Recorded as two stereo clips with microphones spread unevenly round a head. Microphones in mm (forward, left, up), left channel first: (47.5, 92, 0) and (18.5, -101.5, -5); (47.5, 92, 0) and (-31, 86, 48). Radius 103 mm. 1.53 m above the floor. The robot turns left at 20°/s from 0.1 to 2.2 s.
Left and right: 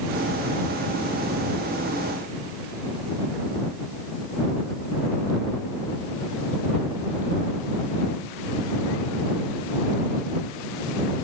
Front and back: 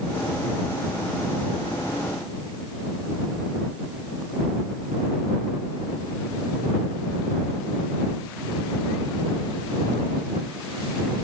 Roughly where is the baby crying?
No baby crying in this recording.